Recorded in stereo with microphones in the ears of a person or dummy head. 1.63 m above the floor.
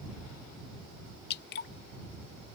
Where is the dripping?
60° left (ahead or behind).